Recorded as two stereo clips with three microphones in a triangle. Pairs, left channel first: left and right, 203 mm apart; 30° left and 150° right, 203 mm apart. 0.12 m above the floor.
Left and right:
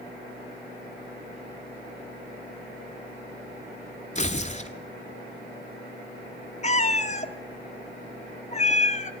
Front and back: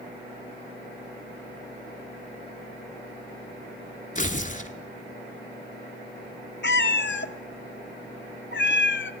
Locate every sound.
4.2 s tearing paper: 55° left, 0.7 m
6.6 s a cat meowing: 45° left, 0.5 m